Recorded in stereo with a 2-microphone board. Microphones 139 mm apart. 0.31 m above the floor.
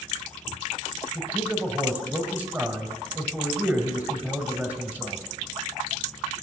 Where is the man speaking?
15° right (ahead or behind), 1.7 m.